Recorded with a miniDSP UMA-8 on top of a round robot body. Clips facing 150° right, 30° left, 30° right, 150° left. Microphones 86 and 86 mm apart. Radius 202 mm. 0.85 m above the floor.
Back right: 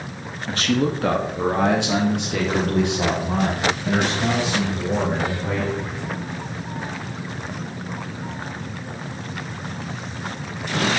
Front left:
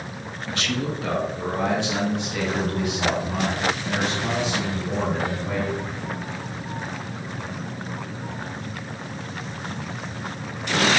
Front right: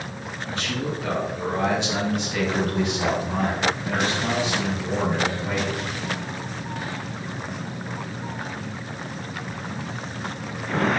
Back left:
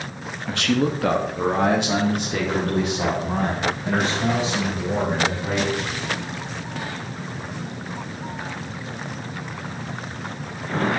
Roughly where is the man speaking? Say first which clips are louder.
Back right 6 dB, back left 8 dB; behind.